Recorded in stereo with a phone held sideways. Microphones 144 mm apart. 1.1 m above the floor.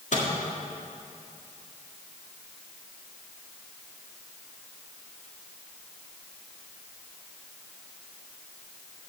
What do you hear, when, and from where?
0.1 s a microwave: 55° left (ahead or behind), 1.9 m